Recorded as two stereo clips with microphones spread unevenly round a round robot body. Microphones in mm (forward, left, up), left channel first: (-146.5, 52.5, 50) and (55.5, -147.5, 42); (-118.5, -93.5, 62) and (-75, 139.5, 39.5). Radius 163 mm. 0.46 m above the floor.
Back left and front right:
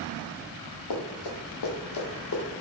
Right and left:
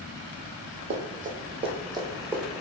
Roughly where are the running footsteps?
Behind left.